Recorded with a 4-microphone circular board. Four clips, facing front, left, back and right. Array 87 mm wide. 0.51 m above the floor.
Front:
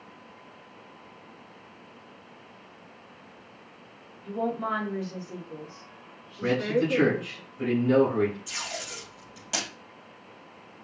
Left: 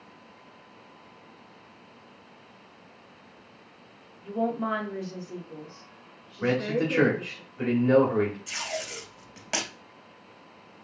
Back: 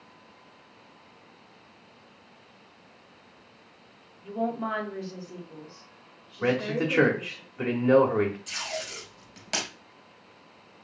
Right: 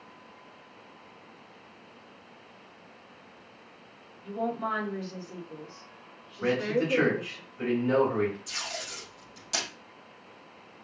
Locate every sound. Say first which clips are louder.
4.2 s a woman speaking: left 3 dB, front 1 dB; 120° left, 1.3 m; by 7.4 s 30° right, 1.7 m
6.4 s a man speaking: left 1 dB, front 1 dB; 160° left, 1.5 m
8.5 s tape being pulled: left 5 dB, back 2 dB; 110° left, 2.5 m